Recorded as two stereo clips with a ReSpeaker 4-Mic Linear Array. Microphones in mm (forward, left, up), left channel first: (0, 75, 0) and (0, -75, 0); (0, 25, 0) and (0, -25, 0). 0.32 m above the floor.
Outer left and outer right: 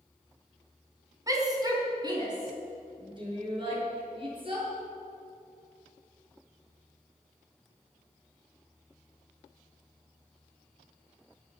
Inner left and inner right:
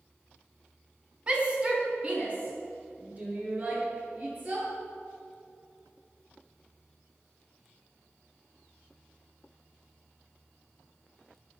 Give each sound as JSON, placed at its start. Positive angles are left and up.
{"t": 1.3, "sound": "a shout", "side_deg": -25, "distance_m": 3.5}